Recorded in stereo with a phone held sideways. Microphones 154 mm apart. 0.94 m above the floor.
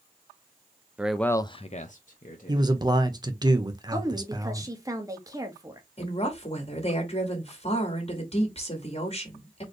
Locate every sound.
1.0 s a man speaking: 10° right (ahead or behind), 0.6 m; by 2.7 s 60° left (ahead or behind), 1.3 m
2.5 s a man speaking: 25° right (ahead or behind), 0.9 m
3.9 s a woman speaking: 20° right (ahead or behind), 1.4 m
6.0 s a woman speaking: 40° left (ahead or behind), 1.8 m